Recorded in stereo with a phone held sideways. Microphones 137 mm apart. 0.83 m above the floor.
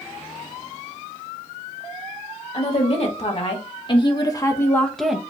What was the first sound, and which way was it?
A woman speaking, 50° left (ahead or behind).